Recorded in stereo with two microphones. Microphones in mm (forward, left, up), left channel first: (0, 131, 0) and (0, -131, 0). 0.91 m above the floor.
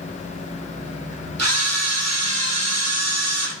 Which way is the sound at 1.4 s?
70° right (ahead or behind).